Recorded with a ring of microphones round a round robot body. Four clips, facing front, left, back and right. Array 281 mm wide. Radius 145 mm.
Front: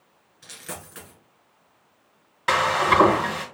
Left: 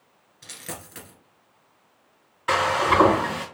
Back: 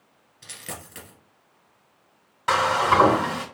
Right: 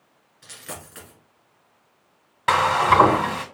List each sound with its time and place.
0.4 s a dropped coin: 140° left, 1.7 m
2.5 s frying: 80° right, 1.8 m